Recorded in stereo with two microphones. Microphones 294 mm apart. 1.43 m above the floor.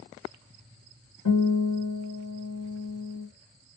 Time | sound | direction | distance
1.2 | a guitar | 75° left (ahead or behind) | 1.7 m